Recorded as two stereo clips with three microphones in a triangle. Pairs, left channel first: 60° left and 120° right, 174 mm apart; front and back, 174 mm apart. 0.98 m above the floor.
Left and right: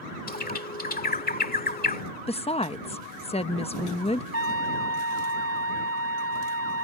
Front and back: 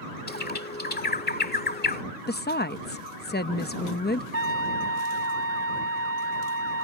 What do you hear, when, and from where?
0.3 s a bird: 25° left
2.3 s a woman speaking: 5° left
4.3 s a trumpet: 30° left